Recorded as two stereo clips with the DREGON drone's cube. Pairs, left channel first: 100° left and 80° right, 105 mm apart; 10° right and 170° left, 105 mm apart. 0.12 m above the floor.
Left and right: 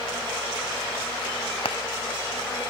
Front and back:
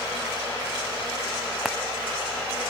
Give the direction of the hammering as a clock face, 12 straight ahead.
9 o'clock.